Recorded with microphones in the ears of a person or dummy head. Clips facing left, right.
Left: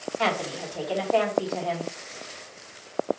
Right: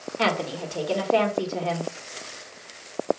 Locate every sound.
0.2 s a woman speaking: 60° right (ahead or behind), 1.6 m